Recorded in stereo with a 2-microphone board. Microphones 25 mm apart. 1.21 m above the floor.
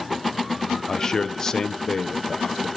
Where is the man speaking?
25° left (ahead or behind), 0.6 m.